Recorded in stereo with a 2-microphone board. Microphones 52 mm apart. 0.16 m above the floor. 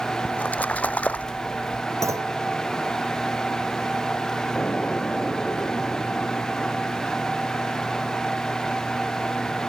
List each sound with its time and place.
0.2 s a splash: 30° left (ahead or behind)
2.0 s a clunk: 70° right (ahead or behind)
4.5 s an explosion: 30° left (ahead or behind)